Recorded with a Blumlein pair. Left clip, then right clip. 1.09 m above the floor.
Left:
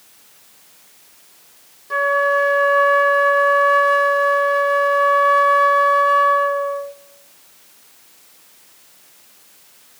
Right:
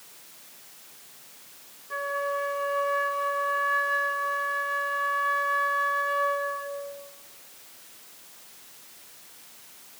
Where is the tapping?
No tapping in this recording.